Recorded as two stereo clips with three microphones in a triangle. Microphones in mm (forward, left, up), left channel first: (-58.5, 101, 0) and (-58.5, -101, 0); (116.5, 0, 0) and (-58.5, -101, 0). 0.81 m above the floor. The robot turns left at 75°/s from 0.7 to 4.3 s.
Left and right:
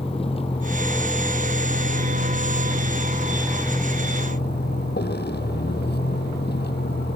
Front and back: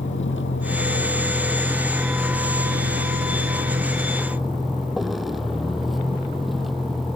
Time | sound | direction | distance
0.0 | a vehicle | 30° left | ?